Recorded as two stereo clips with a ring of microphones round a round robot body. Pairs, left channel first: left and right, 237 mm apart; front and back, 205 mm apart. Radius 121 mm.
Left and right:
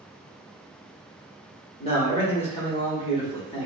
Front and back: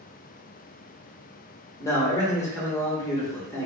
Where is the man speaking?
55° left, 1.0 m.